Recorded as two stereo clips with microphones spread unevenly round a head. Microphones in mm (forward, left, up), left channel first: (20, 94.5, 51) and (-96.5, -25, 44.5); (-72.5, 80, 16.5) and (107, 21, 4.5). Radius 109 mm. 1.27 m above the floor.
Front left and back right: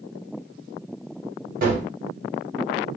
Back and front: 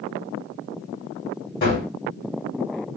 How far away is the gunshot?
About 2 m.